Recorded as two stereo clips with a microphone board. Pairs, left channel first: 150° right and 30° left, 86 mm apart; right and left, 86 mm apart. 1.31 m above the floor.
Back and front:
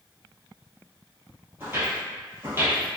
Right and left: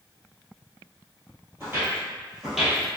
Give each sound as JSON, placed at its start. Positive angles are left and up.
{"t": 1.6, "sound": "footsteps", "azimuth_deg": 65, "distance_m": 1.5}